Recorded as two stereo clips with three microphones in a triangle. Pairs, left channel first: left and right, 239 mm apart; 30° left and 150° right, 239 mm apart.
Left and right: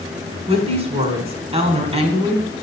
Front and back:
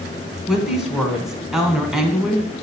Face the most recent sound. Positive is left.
turn(degrees=-65)